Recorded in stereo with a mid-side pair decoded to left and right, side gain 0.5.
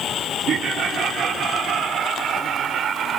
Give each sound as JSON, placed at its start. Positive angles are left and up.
{"t": 0.5, "sound": "laughter", "azimuth_deg": -55}